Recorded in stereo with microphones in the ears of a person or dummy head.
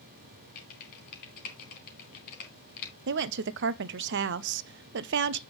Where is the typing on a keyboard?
50° left (ahead or behind), 2.5 m.